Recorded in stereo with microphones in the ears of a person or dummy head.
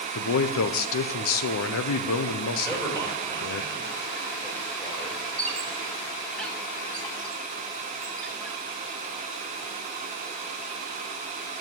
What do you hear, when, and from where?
0.1 s a man speaking: 80° left, 0.9 m
2.6 s a man speaking: 10° left (ahead or behind), 5 m
5.4 s a squeak: 5° left (ahead or behind), 0.7 m